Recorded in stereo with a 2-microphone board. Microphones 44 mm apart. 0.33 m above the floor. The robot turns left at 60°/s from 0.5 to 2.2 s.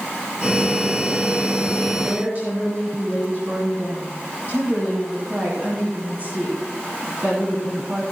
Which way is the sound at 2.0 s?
55° right (ahead or behind).